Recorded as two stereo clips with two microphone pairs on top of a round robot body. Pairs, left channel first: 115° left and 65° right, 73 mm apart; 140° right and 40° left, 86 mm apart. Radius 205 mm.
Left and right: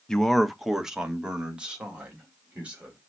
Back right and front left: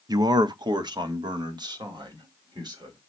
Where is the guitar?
No guitar in this recording.